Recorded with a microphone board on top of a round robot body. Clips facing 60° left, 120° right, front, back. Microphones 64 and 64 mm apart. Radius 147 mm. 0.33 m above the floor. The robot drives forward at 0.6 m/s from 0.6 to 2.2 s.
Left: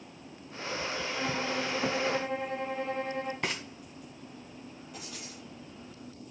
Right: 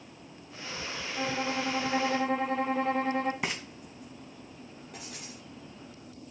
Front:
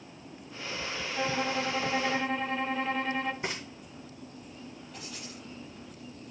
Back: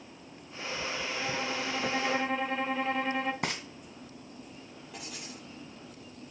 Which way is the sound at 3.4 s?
155° left.